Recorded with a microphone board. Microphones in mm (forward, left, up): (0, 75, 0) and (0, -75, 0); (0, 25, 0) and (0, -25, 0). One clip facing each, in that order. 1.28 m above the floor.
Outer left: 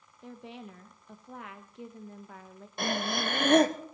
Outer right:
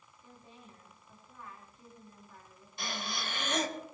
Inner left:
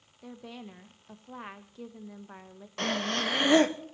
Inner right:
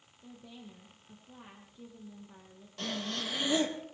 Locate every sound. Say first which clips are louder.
0.2 s a woman speaking: outer left 12 dB, inner left 6 dB; 85° left, 1.0 m
2.8 s breathing: outer left 9 dB, inner left 7 dB; 60° left (ahead or behind), 0.8 m